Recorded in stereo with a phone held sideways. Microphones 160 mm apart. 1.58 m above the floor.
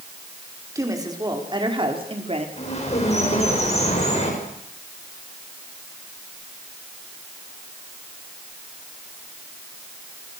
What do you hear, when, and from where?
0.8 s a woman speaking: 20° right (ahead or behind), 5 m; by 2.5 s 40° right (ahead or behind), 4 m
2.6 s a bird: 40° left (ahead or behind), 8 m